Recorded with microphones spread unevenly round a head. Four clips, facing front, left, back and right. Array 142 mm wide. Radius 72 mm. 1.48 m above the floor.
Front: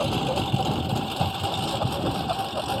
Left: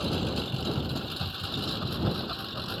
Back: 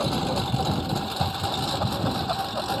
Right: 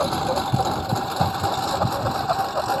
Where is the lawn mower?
65° right; by 2.8 s 70° right.